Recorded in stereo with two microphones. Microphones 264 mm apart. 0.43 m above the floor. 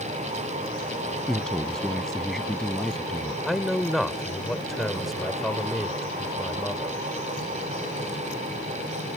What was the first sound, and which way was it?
A man speaking, centre (ahead or behind).